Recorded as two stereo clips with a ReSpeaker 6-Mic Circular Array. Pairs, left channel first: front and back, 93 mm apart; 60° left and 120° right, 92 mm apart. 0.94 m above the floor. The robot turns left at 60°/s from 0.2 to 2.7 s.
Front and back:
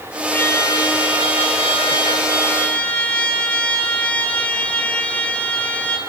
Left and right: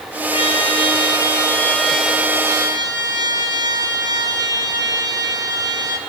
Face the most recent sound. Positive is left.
turn(degrees=-75)